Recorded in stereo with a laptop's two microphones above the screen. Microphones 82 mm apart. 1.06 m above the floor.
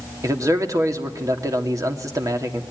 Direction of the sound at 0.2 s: 45° right (ahead or behind).